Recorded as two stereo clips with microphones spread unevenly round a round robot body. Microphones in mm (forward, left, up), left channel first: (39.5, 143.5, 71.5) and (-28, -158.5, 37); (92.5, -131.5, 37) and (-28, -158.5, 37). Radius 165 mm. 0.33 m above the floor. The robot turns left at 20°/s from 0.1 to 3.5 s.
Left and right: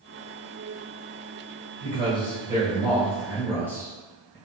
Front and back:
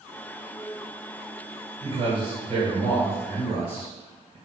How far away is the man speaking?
About 1.9 m.